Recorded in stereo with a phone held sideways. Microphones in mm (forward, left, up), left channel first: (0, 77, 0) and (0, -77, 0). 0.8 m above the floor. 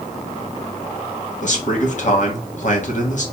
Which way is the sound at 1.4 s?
55° left (ahead or behind).